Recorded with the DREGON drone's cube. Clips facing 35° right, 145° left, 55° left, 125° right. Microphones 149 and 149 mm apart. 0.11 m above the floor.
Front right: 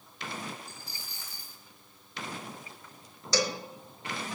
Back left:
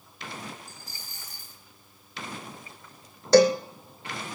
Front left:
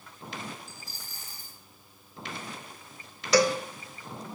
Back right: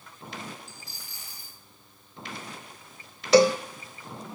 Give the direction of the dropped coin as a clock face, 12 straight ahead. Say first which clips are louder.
Even, front left 1 dB; 9 o'clock.